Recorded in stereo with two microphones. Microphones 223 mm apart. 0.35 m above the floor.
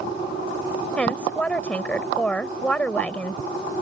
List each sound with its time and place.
1.0 s a woman speaking: 5° left (ahead or behind)